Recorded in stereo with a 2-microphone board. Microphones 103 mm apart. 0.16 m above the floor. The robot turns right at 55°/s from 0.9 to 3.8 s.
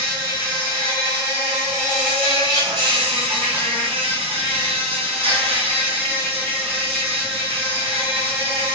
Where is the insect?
130° left, 1.3 m; by 8.8 s 70° right, 1.3 m.